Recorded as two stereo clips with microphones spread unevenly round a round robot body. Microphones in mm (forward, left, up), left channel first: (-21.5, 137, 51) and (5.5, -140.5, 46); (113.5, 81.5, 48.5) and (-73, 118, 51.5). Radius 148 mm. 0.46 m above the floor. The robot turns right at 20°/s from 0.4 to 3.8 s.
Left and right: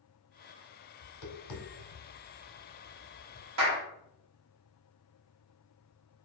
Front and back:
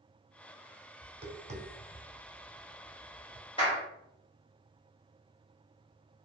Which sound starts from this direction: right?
A clap, at 3.6 s.